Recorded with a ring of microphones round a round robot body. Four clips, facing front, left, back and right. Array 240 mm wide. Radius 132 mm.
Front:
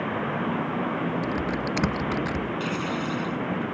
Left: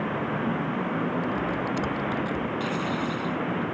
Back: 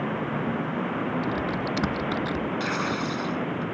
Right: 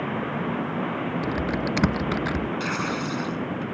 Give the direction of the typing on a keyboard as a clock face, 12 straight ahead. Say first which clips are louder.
Right 1 dB, even; 3 o'clock.